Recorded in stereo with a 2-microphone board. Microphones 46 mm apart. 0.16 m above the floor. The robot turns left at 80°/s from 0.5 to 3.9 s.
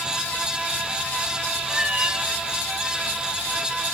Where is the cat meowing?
10° right, 2 m; by 2.2 s 55° right, 2 m.